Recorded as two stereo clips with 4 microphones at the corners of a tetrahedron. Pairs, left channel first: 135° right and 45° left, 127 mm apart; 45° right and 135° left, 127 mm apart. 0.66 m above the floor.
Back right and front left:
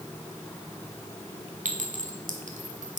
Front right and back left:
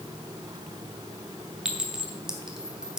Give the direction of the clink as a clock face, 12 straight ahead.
10 o'clock.